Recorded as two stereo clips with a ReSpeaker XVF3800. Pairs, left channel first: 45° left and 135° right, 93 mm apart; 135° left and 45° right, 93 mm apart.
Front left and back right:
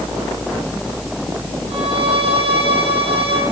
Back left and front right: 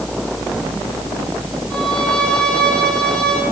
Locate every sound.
1.7 s a violin: 145° right, 9.5 m